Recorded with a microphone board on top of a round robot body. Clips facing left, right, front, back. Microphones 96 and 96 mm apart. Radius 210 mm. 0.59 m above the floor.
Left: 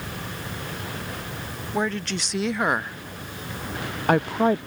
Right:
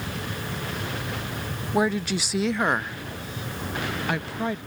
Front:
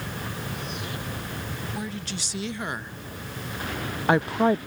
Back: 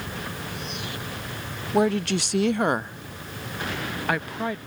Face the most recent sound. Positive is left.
turn(degrees=50)